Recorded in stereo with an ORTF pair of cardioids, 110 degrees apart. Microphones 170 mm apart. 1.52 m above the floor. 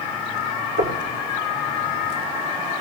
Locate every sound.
0.8 s knocking: 55° right, 4 m